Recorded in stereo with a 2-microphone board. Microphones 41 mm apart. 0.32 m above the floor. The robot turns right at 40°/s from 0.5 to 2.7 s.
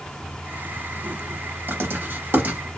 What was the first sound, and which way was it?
Writing, 55° right (ahead or behind).